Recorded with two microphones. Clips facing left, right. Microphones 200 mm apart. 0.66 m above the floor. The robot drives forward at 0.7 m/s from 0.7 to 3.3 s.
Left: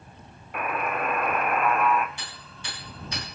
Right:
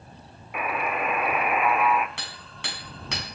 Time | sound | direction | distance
0.5 | a buzzer | 5° right (ahead or behind) | 0.9 m
2.2 | hammering | 75° right (ahead or behind) | 5.5 m